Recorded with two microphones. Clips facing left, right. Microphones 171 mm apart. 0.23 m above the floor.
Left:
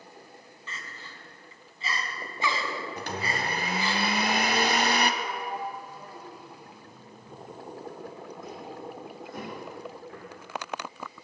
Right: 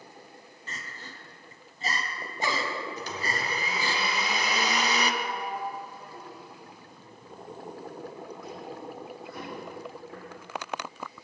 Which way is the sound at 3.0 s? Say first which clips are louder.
Left 1 dB; 55° left (ahead or behind).